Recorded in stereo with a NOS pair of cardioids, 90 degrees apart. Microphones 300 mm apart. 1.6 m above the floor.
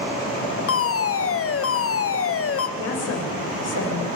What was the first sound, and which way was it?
A fire alarm, 50° left.